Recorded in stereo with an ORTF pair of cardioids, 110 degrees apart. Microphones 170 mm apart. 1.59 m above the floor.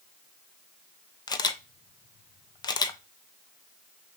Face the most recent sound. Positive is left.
turn(degrees=25)